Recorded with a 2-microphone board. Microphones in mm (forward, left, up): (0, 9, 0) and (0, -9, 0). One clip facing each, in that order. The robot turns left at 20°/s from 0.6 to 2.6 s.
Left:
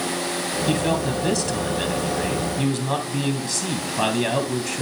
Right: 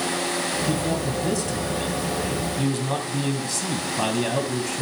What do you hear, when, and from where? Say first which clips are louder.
0.7 s a man speaking: left 3 dB; 65° left, 2 m; by 4.8 s 25° left, 2 m